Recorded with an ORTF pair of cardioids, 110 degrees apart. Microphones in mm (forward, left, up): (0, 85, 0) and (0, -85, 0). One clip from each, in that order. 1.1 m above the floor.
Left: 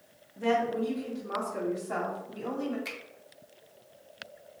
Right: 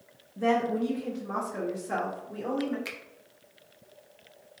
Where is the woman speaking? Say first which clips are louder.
Right 1 dB; 20° right, 0.7 m; by 2.8 s 65° right, 2 m.